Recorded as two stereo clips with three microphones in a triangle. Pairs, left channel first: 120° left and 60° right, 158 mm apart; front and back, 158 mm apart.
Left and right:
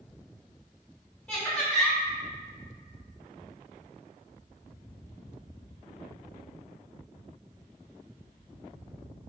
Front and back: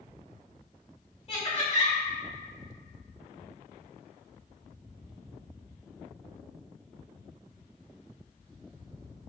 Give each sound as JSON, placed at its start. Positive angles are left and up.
{"t": 1.3, "sound": "laughter", "azimuth_deg": 35, "distance_m": 1.4}